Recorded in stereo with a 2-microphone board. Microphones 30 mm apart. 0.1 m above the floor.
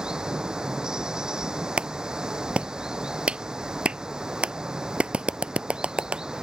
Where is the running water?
20° right (ahead or behind).